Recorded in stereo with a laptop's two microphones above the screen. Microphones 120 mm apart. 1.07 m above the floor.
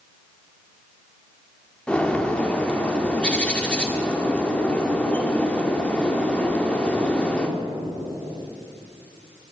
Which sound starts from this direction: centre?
A bird, at 1.9 s.